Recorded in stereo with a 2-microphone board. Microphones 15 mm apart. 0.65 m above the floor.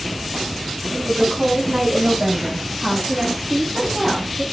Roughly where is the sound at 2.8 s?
Centre.